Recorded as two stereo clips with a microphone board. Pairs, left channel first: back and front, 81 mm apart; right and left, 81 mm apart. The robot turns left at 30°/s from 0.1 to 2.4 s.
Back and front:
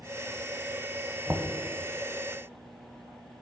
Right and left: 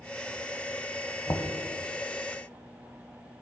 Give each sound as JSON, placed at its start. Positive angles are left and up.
{"t": 1.3, "sound": "knocking", "azimuth_deg": -50, "distance_m": 0.9}